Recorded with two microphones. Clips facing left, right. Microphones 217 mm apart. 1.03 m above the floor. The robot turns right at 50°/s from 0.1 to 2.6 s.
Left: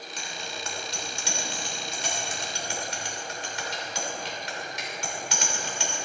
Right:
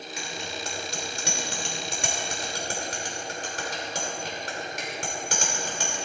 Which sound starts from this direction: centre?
A bicycle bell, at 0.2 s.